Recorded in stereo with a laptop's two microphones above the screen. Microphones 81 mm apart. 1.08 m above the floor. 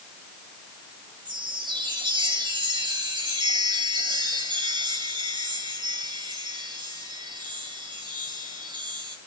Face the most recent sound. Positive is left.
turn(degrees=-80)